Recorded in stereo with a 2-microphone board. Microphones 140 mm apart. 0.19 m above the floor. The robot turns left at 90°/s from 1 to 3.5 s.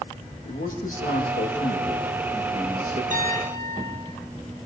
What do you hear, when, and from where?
0.5 s a man speaking: 105° left, 9 m; by 3.0 s 75° right, 9 m
3.1 s a piano: 115° right, 5.5 m; by 4.1 s 150° right, 5.5 m